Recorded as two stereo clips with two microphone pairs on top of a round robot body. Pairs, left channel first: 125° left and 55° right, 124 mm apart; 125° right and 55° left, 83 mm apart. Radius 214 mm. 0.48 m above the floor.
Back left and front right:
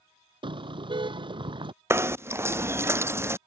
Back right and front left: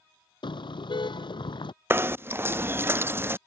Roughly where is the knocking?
Ahead.